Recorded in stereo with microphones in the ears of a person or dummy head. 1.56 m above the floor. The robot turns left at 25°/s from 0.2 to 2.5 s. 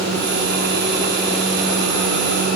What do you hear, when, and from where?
Only background noise.